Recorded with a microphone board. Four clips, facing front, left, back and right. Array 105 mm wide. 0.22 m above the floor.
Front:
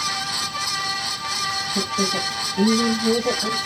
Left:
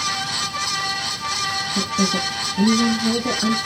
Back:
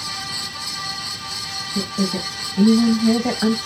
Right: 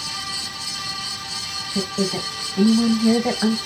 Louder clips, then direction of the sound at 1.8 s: Even, back 2 dB; 85° right.